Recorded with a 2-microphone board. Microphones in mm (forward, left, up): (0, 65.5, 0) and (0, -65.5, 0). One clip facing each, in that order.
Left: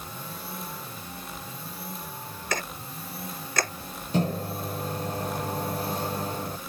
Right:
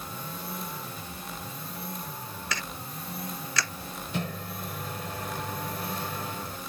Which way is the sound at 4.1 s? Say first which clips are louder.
Left 8 dB; 40° left (ahead or behind).